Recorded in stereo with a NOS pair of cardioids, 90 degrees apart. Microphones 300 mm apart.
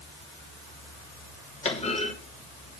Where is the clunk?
20° left, 3 m.